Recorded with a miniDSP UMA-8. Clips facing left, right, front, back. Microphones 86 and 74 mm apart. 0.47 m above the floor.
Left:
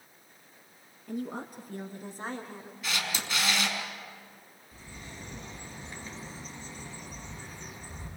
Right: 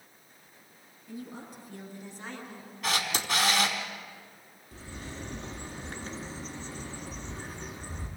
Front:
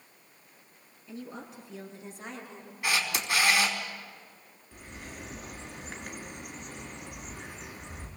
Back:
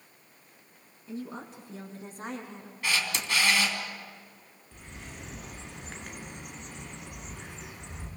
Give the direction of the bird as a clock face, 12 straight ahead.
3 o'clock.